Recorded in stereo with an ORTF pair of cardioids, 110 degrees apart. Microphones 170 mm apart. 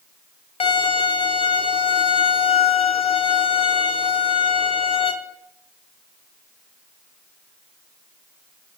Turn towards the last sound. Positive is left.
turn(degrees=35)